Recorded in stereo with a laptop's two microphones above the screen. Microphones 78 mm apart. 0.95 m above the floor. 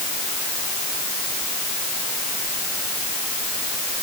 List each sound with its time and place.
Only background noise.